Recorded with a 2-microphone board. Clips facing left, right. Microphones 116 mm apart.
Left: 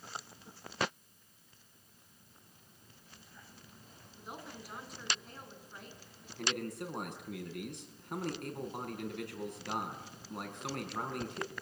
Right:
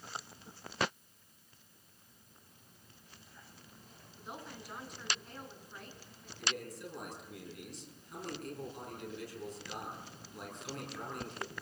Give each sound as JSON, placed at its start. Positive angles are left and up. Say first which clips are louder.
{"t": 4.2, "sound": "a woman speaking", "louder": "even", "side_deg": 0, "distance_m": 6.0}
{"t": 6.4, "sound": "a man speaking", "louder": "left 4 dB", "side_deg": 60, "distance_m": 6.0}